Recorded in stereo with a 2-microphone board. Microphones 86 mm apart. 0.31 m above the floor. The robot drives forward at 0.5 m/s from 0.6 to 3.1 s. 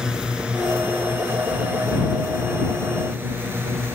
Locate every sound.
0.0 s a drone: 10° right (ahead or behind); by 4.0 s 30° right (ahead or behind)